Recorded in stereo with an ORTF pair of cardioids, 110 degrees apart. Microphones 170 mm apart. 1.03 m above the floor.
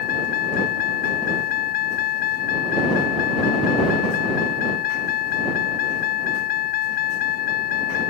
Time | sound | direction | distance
0.0 | a vehicle | 65° left | ?